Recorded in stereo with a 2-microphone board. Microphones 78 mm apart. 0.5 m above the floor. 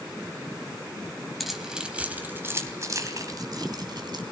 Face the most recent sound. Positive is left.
turn(degrees=-65)  # may be behind; listen again after turning